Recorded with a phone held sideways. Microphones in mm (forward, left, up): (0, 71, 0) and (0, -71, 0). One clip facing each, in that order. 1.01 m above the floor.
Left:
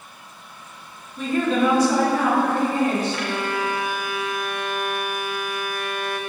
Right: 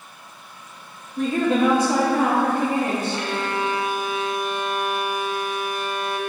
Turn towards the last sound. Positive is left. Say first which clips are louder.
# even
turn(degrees=-25)  # may be behind; listen again after turning